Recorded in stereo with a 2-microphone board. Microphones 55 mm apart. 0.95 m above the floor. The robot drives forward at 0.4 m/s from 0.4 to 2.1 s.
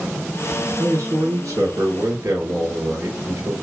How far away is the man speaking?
About 2.5 m.